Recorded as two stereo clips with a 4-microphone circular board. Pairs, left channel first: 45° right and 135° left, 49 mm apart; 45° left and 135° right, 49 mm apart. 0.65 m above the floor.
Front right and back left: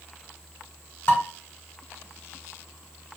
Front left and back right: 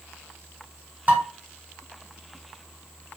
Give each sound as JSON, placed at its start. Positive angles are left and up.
{"t": 1.1, "sound": "dishes clattering", "azimuth_deg": -80, "distance_m": 1.5}